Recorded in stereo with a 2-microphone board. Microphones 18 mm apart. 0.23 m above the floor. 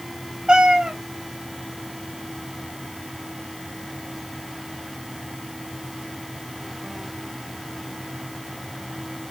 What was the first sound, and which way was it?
A cat meowing, 55° right (ahead or behind).